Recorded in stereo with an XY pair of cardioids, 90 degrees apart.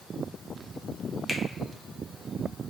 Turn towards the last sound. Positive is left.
turn(degrees=5)